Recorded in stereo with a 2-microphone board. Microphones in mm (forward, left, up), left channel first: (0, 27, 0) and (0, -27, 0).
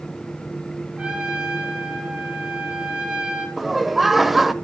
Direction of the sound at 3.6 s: Centre (ahead or behind).